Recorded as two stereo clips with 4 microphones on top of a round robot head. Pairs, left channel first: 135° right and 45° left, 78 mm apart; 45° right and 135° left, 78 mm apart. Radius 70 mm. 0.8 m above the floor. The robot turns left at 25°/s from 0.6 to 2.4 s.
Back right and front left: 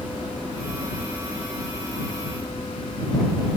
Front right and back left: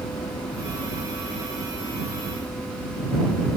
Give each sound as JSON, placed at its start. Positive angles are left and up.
{"t": 0.0, "sound": "a helicopter", "azimuth_deg": -35}